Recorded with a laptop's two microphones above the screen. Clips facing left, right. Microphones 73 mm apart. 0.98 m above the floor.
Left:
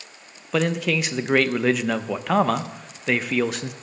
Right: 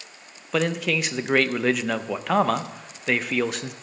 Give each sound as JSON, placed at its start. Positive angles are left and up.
{"t": 0.5, "sound": "a man speaking", "side_deg": 0, "distance_m": 0.6}